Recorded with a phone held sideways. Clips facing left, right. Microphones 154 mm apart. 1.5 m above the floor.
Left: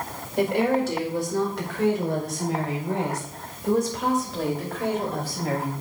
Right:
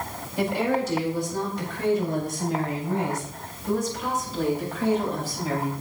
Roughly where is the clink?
No clink in this recording.